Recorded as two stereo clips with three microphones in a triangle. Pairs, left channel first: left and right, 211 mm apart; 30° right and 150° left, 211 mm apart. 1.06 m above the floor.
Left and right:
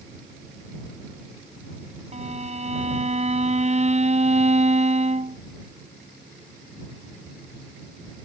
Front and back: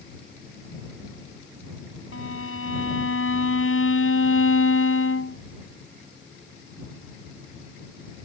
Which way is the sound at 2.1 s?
30° right.